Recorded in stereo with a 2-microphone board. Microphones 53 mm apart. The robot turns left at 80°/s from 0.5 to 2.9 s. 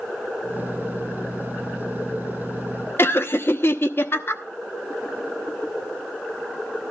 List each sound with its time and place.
3.0 s laughter: 45° left (ahead or behind), 0.9 m